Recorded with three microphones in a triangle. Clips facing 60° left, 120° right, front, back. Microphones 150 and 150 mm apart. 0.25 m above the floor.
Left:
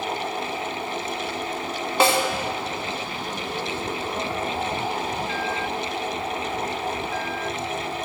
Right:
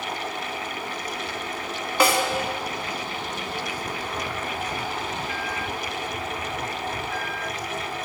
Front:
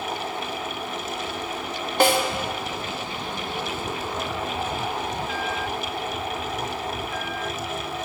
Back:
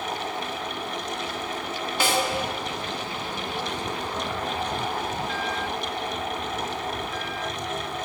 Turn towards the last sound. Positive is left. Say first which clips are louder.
# left 1 dB, front 6 dB
turn(degrees=0)